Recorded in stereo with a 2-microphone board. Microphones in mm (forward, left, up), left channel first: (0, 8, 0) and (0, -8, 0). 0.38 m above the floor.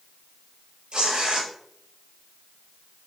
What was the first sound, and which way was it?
Tearing paper, 65° right (ahead or behind).